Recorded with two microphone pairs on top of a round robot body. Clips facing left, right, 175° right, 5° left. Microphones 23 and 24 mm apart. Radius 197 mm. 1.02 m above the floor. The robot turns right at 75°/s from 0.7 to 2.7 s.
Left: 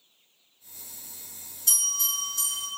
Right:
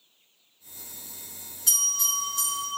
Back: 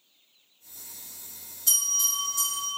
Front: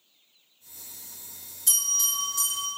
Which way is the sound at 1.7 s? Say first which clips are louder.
Right 2 dB, even; 115° right.